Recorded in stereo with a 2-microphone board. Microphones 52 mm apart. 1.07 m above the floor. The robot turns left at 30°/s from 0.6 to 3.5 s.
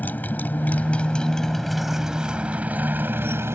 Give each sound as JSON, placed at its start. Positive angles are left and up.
{"t": 0.0, "sound": "a motorcycle", "azimuth_deg": 35}